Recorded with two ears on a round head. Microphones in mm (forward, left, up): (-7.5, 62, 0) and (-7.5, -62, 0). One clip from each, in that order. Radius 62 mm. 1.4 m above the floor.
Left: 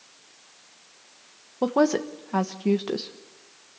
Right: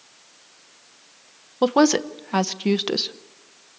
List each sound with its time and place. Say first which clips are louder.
1.6 s a woman speaking: right 4 dB; 70° right (ahead or behind), 1.0 m